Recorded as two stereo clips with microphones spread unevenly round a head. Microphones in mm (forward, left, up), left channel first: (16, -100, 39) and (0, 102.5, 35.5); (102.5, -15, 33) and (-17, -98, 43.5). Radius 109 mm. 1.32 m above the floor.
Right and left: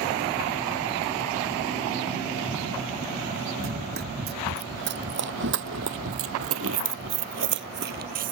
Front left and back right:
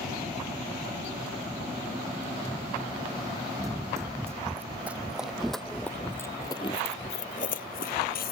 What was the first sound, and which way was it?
Running footsteps, 140° left.